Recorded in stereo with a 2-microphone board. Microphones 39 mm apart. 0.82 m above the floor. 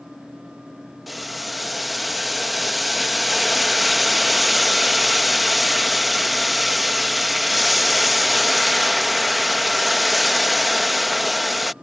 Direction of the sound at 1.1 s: 5° right (ahead or behind).